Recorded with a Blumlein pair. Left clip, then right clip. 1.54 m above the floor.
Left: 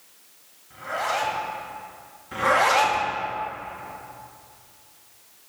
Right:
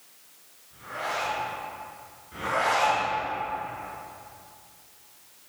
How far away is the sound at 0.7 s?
About 2.5 m.